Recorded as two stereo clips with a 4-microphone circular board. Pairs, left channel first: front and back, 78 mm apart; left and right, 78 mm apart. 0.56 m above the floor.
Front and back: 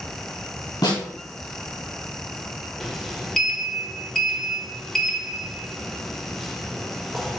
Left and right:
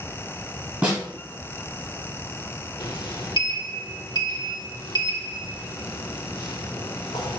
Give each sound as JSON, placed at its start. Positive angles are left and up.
{"t": 0.8, "sound": "a snare drum", "azimuth_deg": -15, "distance_m": 2.5}
{"t": 2.8, "sound": "a sliding door", "azimuth_deg": 85, "distance_m": 0.7}